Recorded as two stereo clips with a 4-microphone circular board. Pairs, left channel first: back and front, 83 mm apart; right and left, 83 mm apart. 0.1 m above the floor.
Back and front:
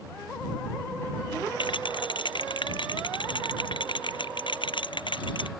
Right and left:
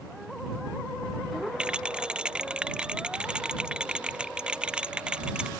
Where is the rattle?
170° left.